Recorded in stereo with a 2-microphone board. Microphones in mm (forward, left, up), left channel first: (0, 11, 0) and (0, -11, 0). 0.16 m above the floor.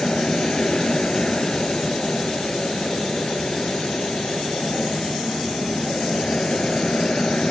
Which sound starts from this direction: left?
An aircraft, at 0.0 s.